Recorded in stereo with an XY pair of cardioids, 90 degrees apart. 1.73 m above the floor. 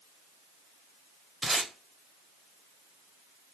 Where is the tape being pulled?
25° right, 1.0 m.